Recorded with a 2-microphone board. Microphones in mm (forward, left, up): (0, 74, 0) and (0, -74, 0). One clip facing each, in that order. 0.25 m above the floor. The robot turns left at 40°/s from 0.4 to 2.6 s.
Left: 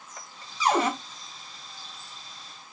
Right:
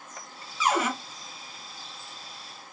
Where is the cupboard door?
35° left (ahead or behind), 0.7 m; by 0.9 s 30° left (ahead or behind), 0.7 m.